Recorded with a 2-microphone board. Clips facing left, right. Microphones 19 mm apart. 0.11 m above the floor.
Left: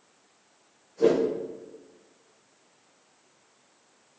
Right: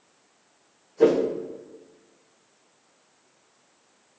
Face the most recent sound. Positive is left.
turn(degrees=-75)  # may be behind; listen again after turning